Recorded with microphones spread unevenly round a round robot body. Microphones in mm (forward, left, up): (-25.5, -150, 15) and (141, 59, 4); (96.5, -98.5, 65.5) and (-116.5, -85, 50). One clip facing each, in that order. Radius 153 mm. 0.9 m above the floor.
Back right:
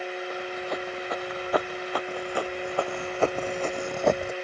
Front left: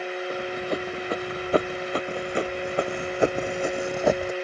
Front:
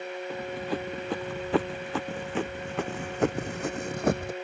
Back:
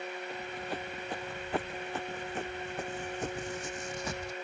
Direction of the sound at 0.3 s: 5° right.